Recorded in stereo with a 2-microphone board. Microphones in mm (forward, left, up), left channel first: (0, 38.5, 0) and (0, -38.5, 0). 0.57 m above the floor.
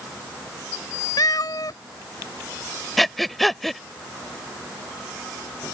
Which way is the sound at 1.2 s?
60° left (ahead or behind).